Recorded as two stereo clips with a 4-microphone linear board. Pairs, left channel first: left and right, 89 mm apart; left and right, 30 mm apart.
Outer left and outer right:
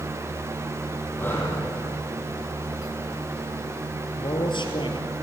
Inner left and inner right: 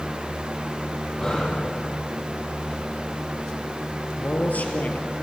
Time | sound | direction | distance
1.2 | breathing | 25° left (ahead or behind) | 5.5 m
4.2 | a man speaking | 65° left (ahead or behind) | 3.5 m